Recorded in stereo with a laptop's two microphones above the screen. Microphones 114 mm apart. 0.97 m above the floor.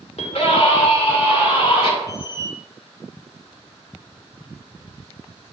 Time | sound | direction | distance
0.2 | a scream | 65° left (ahead or behind) | 2 m
2.1 | a squeak | 25° right (ahead or behind) | 1.0 m